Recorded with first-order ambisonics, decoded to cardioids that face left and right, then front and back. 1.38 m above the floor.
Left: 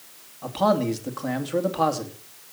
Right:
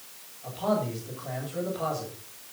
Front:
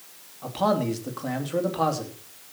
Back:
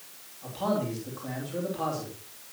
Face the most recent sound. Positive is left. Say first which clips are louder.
# left 6 dB, front 6 dB
turn(degrees=60)